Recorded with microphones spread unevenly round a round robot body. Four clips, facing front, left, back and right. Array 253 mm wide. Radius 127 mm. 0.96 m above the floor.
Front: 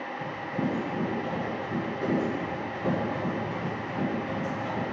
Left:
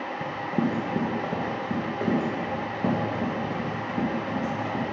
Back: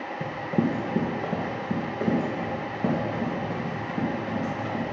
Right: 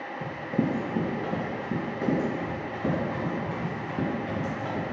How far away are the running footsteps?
About 2 m.